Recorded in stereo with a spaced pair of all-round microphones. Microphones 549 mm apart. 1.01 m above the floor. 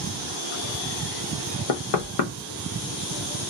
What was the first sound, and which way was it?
Knocking, 75° left (ahead or behind).